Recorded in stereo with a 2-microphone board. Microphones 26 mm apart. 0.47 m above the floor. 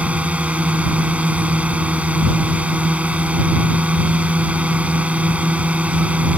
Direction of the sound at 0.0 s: 70° right (ahead or behind).